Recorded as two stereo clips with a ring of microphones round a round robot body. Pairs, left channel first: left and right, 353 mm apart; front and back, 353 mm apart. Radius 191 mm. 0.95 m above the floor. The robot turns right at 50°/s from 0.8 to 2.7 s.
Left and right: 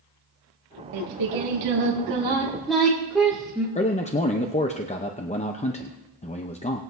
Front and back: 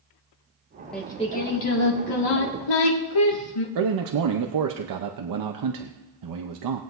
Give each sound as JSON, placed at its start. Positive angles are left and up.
{"t": 0.9, "sound": "singing", "azimuth_deg": -90, "distance_m": 2.0}
{"t": 3.8, "sound": "a man speaking", "azimuth_deg": 160, "distance_m": 0.8}